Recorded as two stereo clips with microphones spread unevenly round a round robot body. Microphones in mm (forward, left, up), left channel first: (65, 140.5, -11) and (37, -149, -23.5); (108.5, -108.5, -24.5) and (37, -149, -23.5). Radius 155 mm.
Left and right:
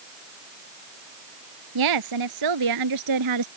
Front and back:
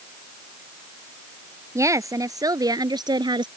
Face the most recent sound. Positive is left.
turn(degrees=-130)